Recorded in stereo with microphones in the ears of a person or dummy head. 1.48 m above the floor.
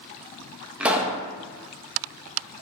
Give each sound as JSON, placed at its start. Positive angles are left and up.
{"t": 0.8, "sound": "a pop", "side_deg": -10, "distance_m": 1.3}